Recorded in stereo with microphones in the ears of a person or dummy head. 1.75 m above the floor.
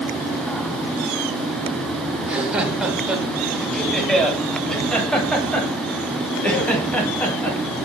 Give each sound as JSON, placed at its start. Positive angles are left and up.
{"t": 2.2, "sound": "laughter", "side_deg": -10, "distance_m": 7.0}